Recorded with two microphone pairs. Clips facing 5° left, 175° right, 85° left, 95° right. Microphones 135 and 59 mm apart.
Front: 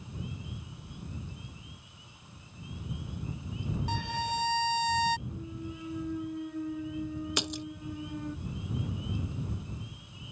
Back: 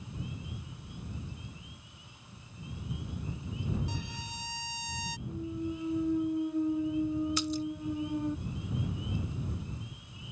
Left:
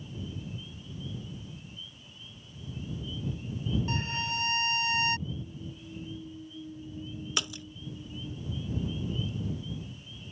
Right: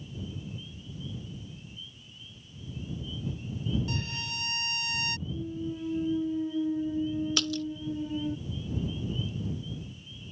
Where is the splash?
15° left.